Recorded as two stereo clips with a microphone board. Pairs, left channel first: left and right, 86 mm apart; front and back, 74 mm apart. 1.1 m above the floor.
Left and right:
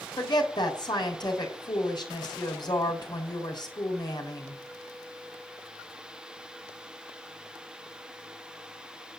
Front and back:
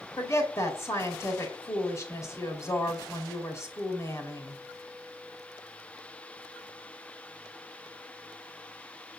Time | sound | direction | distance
0.2 | a woman speaking | 50° left | 4 m